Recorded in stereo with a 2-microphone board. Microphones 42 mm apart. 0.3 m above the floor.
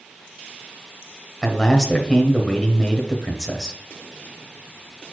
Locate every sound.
1.4 s a man speaking: 10° left (ahead or behind), 1.1 m